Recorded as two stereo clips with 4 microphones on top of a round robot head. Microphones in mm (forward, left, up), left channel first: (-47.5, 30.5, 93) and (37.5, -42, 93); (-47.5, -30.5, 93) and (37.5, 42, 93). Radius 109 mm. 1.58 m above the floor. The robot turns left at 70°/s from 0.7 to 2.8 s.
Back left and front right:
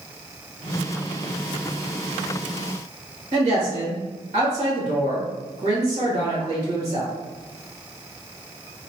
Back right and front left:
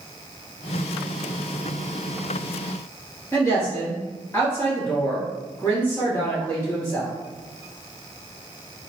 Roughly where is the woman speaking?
Right.